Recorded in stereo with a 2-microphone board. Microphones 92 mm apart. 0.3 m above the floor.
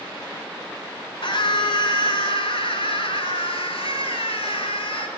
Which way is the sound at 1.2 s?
65° left (ahead or behind).